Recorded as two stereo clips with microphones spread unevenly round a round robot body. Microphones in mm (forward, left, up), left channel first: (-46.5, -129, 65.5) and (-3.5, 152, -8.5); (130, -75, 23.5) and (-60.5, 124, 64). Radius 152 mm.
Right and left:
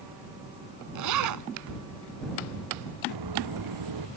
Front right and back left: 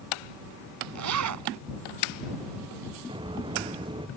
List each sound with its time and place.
0.9 s a zipper: 110° left
3.1 s footsteps: 60° left